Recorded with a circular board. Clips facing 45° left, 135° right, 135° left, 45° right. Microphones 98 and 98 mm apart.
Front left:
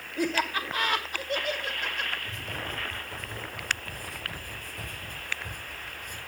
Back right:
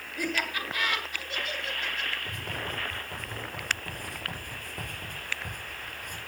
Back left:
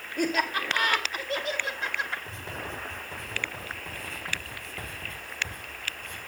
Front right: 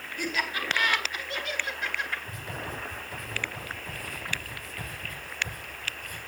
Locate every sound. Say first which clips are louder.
0.2 s laughter: front left 4 dB, back left 5 dB; 105° left, 2 m; by 2.2 s 75° left, 3 m
2.3 s writing: back right 1 dB, even; 165° right, 6 m